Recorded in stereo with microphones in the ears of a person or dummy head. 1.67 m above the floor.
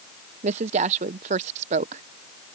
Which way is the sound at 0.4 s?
35° right (ahead or behind).